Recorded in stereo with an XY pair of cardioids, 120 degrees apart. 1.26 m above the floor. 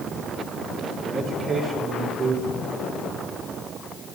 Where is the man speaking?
55° right, 3 m.